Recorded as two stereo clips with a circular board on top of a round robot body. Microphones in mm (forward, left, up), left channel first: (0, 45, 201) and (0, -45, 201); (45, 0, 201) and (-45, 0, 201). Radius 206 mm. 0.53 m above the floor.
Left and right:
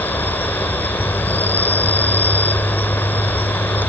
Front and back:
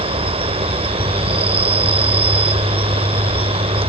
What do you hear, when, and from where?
0.0 s an insect: 160° left